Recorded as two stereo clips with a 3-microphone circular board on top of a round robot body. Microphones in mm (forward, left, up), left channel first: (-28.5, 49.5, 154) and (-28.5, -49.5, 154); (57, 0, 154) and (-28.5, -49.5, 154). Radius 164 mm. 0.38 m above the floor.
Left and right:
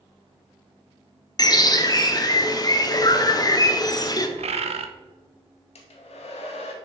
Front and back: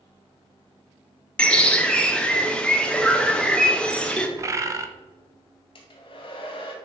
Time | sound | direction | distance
1.4 | a bird | 105° left | 1.0 m
4.4 | a bird | 90° right | 0.6 m
5.8 | a hair dryer | 70° left | 0.6 m